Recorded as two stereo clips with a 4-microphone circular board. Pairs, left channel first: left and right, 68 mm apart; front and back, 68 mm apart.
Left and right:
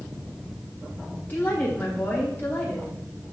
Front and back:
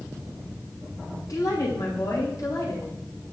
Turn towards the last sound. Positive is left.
turn(degrees=30)